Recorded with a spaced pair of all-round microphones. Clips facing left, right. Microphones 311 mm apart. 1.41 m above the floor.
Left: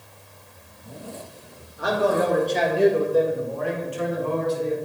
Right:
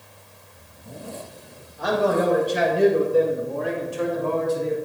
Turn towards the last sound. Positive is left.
turn(degrees=-60)  # may be behind; listen again after turning